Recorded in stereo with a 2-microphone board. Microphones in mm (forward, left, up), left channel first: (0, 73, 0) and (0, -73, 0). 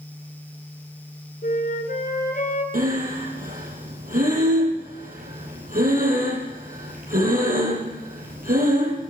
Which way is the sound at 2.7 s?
75° right (ahead or behind).